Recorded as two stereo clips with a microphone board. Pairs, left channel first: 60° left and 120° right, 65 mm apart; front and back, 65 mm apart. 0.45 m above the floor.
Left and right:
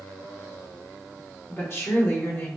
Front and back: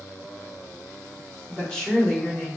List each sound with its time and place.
1.5 s a woman speaking: 65° left, 1.7 m